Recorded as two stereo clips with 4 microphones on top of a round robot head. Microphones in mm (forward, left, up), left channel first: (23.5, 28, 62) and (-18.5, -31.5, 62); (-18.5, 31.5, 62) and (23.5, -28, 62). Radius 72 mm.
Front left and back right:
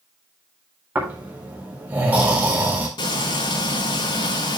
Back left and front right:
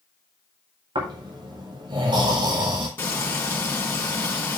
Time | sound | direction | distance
0.9 | snoring | 60° right | 4.5 m
3.0 | frying | 60° left | 4.5 m